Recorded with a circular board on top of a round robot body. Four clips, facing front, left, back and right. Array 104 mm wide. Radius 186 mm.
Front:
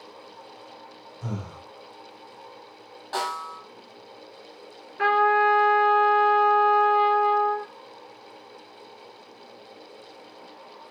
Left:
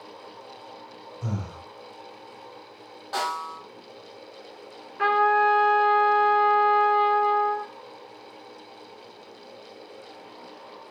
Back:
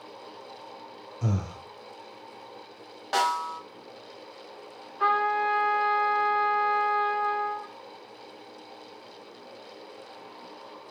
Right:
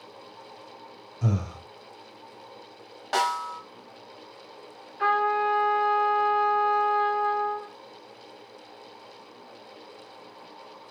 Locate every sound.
1.2 s breathing: 125° right, 1.1 m
3.1 s a snare drum: 130° right, 1.6 m
5.0 s a trumpet: 25° left, 1.6 m